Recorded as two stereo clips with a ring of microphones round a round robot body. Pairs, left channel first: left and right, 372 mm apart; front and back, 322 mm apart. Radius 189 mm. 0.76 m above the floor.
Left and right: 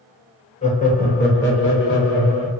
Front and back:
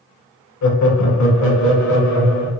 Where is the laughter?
20° left, 0.7 m; by 2.5 s 35° left, 1.6 m.